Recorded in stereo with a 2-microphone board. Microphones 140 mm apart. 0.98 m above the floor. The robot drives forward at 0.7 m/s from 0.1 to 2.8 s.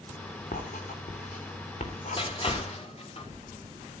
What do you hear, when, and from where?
0.5 s writing: 70° left (ahead or behind), 3 m; by 2.6 s 50° left (ahead or behind), 4 m
2.2 s crushing: 40° left (ahead or behind), 3.5 m; by 3.3 s 45° left (ahead or behind), 3 m